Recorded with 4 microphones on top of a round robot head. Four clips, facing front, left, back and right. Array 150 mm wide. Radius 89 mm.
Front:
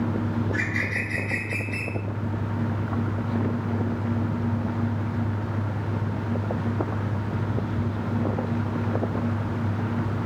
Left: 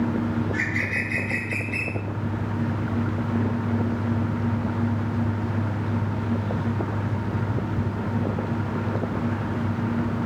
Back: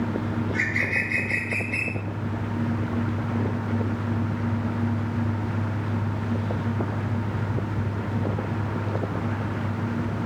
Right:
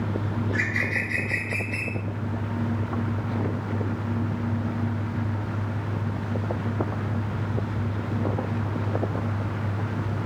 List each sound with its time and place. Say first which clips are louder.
0.4 s a bird: left 1 dB, back 1 dB; 35° right, 4.5 m